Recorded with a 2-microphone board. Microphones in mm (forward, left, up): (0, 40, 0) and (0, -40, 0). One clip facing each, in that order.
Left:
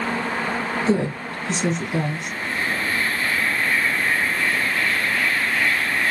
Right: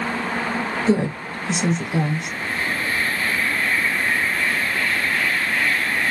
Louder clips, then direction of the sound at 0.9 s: Right 2 dB; 10° right (ahead or behind).